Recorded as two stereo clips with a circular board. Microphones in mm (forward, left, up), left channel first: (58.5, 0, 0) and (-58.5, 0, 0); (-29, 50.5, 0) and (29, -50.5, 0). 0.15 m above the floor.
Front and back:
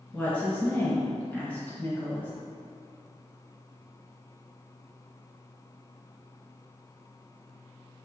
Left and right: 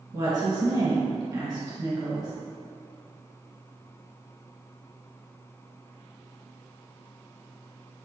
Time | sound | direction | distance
0.1 | a woman speaking | 65° right | 1.5 m